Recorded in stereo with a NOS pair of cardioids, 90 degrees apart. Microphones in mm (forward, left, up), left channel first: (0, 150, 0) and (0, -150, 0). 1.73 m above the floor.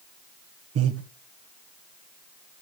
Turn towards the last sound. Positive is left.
turn(degrees=-55)